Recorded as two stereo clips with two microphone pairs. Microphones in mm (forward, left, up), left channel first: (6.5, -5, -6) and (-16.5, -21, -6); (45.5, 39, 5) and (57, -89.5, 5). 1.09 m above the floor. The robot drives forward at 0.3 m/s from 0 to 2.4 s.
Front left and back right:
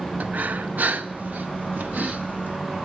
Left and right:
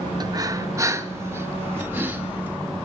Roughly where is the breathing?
Behind right.